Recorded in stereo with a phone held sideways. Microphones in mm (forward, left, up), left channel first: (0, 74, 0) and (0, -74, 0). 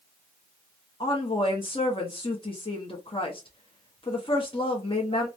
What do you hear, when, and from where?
1.0 s a woman speaking: 35° left (ahead or behind), 0.8 m